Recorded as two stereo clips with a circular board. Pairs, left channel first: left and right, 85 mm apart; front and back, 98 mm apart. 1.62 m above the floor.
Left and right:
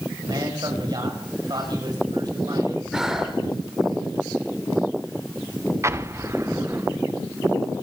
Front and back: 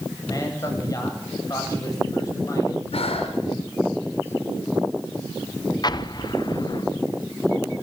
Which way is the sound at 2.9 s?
5° right.